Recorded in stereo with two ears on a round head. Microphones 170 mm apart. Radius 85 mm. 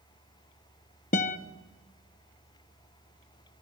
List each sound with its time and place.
1.1 s a guitar: 40° left (ahead or behind), 1.1 m